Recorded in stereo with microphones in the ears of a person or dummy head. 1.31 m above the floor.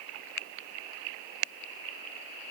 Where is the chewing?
No chewing in this recording.